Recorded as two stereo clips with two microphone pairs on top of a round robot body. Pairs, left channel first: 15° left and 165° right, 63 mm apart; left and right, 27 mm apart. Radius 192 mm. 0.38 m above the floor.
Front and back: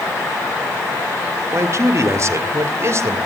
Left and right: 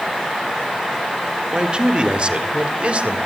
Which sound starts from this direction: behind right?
A man speaking, at 1.5 s.